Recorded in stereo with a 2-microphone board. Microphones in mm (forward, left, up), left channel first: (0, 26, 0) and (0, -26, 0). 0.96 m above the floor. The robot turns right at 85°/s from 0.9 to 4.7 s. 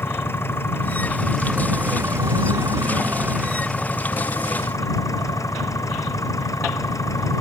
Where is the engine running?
135° left; by 7.4 s 95° left.